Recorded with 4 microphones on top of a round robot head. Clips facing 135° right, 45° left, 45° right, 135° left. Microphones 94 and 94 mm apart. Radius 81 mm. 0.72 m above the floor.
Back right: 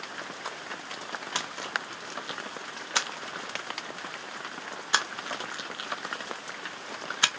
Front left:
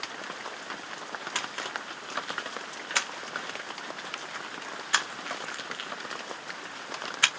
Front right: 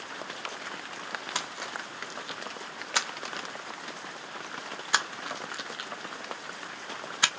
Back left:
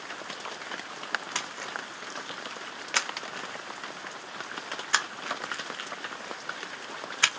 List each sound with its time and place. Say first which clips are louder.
1.4 s a splash: back right 2 dB, even; 100° right, 0.9 m